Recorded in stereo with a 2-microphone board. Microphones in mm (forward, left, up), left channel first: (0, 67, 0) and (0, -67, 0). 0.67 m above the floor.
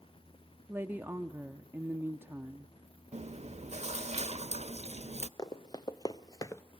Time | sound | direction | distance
0.7 | a woman speaking | 15° right (ahead or behind) | 0.8 m
3.1 | chewing | 60° right (ahead or behind) | 0.7 m
5.4 | running footsteps | 30° left (ahead or behind) | 2 m